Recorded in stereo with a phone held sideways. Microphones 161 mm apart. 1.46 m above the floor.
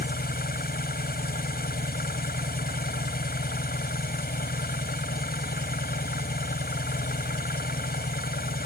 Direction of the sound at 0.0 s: 80° left.